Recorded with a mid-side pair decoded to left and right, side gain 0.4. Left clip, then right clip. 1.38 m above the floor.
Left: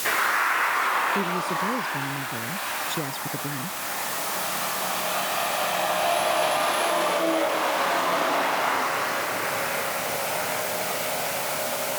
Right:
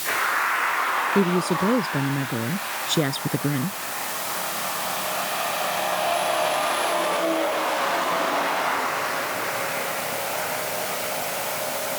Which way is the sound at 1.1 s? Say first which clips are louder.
Right 3 dB; 60° right.